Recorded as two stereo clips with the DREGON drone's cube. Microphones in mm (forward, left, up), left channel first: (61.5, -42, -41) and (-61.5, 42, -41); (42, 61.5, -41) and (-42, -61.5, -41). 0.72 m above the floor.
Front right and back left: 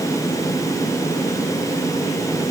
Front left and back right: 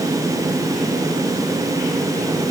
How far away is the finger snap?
I don't hear a finger snap.